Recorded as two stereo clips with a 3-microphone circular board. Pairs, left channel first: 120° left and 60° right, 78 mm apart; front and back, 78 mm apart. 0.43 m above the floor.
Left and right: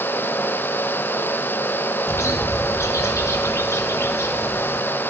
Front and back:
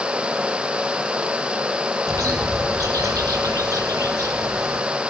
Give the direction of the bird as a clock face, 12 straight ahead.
7 o'clock.